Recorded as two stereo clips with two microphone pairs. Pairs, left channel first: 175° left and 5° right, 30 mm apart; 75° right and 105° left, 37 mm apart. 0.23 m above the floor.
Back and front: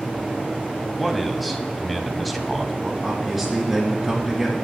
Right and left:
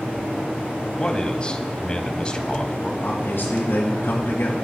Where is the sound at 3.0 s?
85° right, 3.5 m.